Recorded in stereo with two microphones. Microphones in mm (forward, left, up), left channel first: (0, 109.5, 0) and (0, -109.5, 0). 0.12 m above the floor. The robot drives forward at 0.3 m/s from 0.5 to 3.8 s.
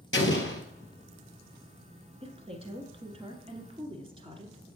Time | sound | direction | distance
0.1 | an explosion | 60° left (ahead or behind) | 1.2 m
2.2 | a woman speaking | 25° right (ahead or behind) | 1.2 m